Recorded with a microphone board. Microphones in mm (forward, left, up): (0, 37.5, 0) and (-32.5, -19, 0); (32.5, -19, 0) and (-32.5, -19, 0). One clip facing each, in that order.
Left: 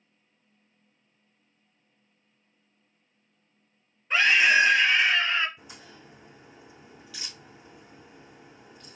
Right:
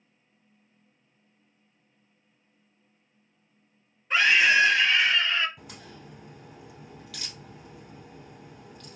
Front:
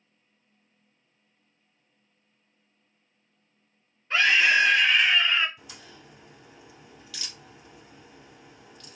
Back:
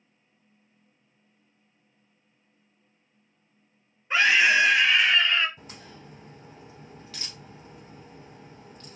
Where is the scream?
155° left, 1.1 m; by 5.5 s 60° left, 1.2 m.